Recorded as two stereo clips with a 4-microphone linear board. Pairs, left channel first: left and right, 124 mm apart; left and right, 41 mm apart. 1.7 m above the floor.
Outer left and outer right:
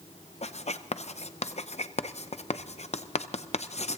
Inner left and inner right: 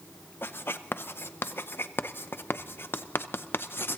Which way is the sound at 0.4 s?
60° left (ahead or behind).